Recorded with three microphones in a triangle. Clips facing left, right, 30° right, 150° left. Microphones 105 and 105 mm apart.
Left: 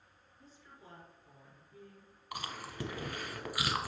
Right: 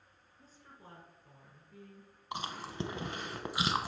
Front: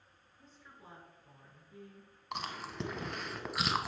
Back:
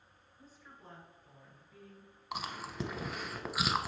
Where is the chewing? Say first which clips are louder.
Right 3 dB, even; 125° right, 0.7 m.